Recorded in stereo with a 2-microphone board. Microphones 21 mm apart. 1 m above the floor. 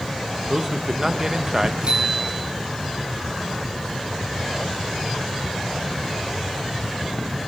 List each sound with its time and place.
0.5 s a man speaking: 30° right (ahead or behind), 0.9 m
1.8 s a bicycle bell: 70° right (ahead or behind), 7.5 m